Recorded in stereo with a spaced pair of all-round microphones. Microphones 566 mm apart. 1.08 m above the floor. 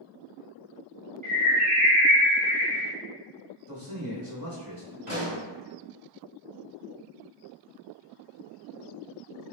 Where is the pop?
35° right (ahead or behind), 2.0 m.